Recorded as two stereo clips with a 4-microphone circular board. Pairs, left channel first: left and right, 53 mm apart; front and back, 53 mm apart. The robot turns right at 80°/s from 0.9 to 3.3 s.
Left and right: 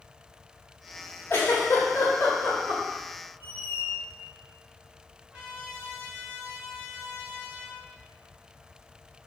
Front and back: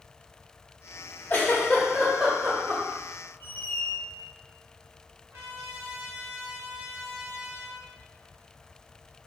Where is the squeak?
45° left, 1.1 m.